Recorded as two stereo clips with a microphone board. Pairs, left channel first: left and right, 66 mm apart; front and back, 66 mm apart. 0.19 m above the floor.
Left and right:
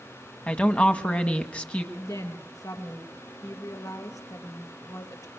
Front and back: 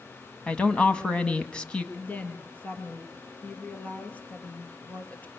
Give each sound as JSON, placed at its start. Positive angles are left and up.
{"t": 0.5, "sound": "a woman speaking", "azimuth_deg": 55, "distance_m": 1.4}
{"t": 1.9, "sound": "a woman speaking", "azimuth_deg": 65, "distance_m": 3.5}